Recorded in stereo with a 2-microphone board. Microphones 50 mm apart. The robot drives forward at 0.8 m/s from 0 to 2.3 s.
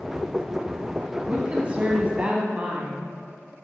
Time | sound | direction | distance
1.3 | a woman speaking | 20° right (ahead or behind) | 1.5 m